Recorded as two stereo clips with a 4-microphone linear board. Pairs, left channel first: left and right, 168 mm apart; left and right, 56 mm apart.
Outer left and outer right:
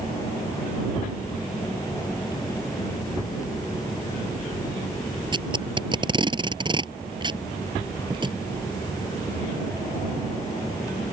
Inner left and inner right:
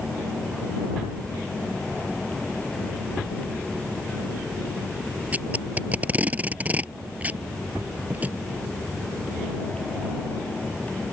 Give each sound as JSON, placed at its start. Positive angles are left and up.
{"t": 5.3, "sound": "tape being pulled", "side_deg": -25}